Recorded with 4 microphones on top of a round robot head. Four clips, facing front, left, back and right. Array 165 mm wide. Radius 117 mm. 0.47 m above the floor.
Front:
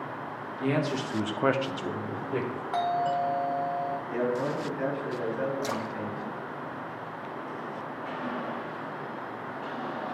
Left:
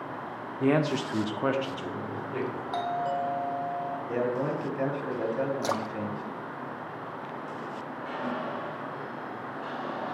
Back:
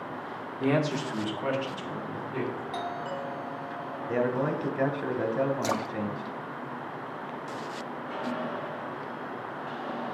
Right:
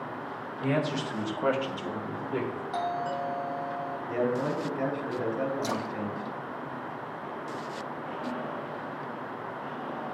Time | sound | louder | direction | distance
0.6 | a man speaking | left 4 dB, back 2 dB | 115° left | 1.2 m
2.7 | a doorbell | left 2 dB, front 7 dB | 35° left | 1.8 m
4.1 | a man speaking | right 1 dB, back 4 dB | 165° left | 1.8 m
5.6 | a splash | left 1 dB, back 2 dB | 125° left | 0.5 m